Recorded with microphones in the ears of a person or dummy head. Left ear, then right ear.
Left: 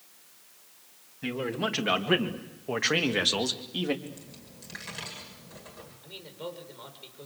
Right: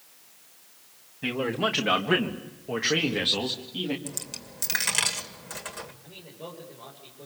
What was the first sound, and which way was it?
A man speaking, 20° right (ahead or behind).